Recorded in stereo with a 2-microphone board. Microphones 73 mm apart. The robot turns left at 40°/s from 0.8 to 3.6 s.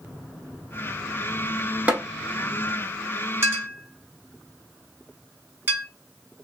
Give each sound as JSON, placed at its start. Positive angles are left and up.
{"t": 1.9, "sound": "tapping", "side_deg": -20, "distance_m": 1.1}
{"t": 3.4, "sound": "a clink", "side_deg": -40, "distance_m": 1.4}